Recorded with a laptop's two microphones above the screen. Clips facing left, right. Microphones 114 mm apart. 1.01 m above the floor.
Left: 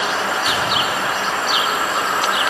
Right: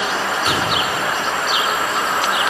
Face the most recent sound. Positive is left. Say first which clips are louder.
# right 1 dB
turn(degrees=-40)  # may be behind; listen again after turning